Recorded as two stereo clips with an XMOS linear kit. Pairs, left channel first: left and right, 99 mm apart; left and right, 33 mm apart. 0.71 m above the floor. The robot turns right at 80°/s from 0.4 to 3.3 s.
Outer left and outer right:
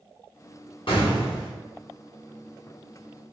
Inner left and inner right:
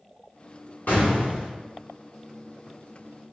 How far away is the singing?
No singing in this recording.